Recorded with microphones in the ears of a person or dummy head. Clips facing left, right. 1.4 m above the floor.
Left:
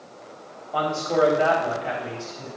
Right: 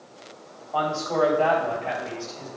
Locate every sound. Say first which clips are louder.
0.7 s a man speaking: left 2 dB; 25° left (ahead or behind), 3 m; by 2.5 s 10° left (ahead or behind), 3.5 m